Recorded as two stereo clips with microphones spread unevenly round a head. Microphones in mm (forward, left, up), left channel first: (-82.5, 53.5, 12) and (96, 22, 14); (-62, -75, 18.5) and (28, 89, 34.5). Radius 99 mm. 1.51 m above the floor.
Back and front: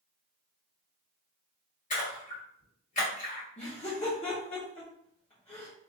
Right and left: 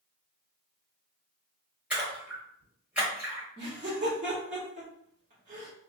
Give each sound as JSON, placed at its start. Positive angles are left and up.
{"t": 1.9, "sound": "a splash", "azimuth_deg": 140, "distance_m": 1.8}
{"t": 3.6, "sound": "laughter", "azimuth_deg": 115, "distance_m": 1.1}